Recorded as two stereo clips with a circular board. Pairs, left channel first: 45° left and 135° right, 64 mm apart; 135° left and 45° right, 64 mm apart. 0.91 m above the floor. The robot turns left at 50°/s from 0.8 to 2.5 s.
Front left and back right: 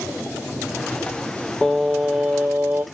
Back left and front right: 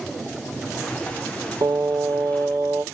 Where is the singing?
35° right, 0.6 m; by 2.8 s 80° right, 0.6 m.